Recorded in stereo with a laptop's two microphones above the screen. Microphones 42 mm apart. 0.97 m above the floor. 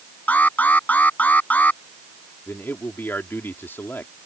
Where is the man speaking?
65° left (ahead or behind).